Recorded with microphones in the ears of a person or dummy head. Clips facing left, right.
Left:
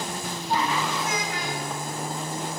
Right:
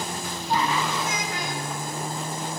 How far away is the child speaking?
About 6 m.